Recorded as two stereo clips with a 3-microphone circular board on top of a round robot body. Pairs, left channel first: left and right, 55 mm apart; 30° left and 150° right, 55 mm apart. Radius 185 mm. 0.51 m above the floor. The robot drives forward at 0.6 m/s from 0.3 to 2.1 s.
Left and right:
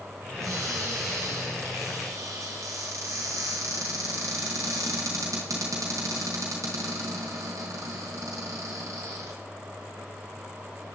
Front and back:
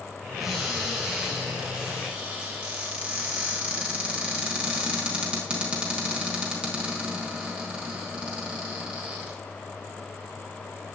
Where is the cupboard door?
65° right, 4 m; by 9.3 s 80° right, 3.5 m.